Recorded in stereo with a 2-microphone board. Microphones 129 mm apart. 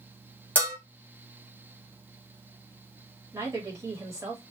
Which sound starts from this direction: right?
A woman speaking, at 3.3 s.